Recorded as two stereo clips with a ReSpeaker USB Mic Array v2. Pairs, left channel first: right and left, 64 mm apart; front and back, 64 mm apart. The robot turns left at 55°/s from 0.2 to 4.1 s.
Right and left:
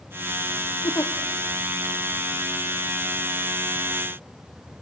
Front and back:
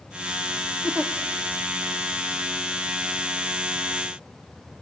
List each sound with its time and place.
0.8 s a giggle: 105° right, 1.7 m; by 1.1 s 120° right, 1.7 m